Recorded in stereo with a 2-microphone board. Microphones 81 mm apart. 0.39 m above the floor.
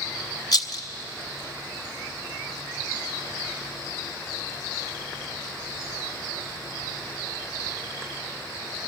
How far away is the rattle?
About 1.0 m.